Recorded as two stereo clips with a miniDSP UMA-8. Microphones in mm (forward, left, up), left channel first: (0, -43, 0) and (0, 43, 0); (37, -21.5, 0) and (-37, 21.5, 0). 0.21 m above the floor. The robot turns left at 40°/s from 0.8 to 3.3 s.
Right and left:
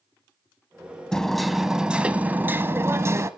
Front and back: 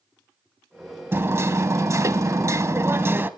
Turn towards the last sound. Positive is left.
turn(degrees=105)